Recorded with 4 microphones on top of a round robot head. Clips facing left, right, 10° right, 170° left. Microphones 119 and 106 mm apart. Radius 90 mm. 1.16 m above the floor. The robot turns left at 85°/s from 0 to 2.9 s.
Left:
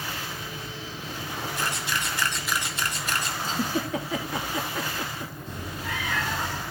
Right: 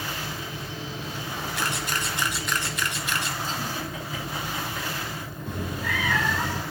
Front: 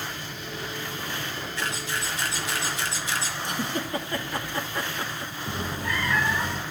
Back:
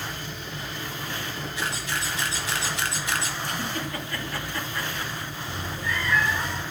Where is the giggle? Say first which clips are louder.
Left 4 dB, front 1 dB; 60° left, 3 m.